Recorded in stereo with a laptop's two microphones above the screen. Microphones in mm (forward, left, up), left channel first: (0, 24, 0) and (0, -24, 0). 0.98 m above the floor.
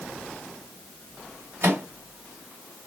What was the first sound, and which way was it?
A microwave, 50° right (ahead or behind).